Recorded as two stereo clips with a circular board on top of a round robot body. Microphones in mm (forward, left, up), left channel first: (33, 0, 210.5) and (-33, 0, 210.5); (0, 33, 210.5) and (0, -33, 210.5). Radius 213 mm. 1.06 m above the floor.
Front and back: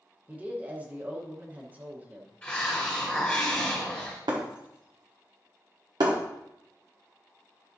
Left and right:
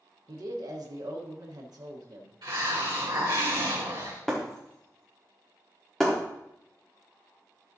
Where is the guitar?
I don't hear a guitar.